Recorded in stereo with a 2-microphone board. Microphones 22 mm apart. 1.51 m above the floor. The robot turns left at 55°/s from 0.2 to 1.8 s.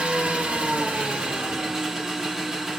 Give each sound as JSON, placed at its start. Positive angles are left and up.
{"t": 0.0, "sound": "an engine running", "azimuth_deg": -65, "distance_m": 2.0}